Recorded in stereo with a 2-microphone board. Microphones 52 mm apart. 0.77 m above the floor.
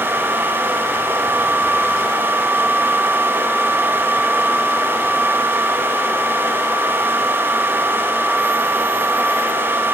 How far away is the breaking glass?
No breaking glass in this recording.